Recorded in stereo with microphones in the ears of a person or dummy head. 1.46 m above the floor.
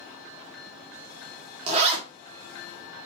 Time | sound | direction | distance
1.7 | a zipper | 35° right (ahead or behind) | 0.7 m